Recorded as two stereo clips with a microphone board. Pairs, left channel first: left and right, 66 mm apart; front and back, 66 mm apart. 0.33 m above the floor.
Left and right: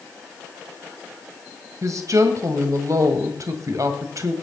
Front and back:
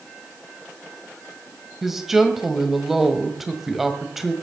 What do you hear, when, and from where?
1.8 s a woman speaking: 95° right, 1.9 m